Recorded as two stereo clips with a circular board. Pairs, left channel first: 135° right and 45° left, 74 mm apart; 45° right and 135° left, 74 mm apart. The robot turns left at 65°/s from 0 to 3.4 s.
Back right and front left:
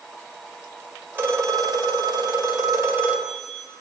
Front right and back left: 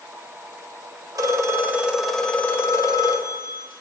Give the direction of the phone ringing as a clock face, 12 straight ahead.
8 o'clock.